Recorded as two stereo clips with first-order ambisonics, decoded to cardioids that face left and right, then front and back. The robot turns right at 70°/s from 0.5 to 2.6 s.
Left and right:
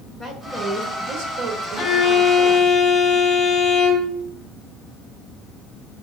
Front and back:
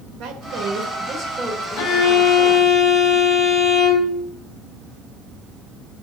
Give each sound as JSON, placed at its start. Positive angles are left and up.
{"t": 0.2, "sound": "a woman speaking", "azimuth_deg": -160, "distance_m": 2.0}
{"t": 1.8, "sound": "a violin", "azimuth_deg": -10, "distance_m": 2.5}